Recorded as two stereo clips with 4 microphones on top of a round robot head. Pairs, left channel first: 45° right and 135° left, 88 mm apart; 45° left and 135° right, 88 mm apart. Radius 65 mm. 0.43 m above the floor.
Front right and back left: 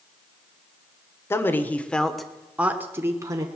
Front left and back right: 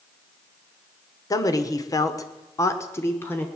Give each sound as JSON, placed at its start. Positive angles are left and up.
{"t": 1.3, "sound": "a man speaking", "azimuth_deg": 10, "distance_m": 1.5}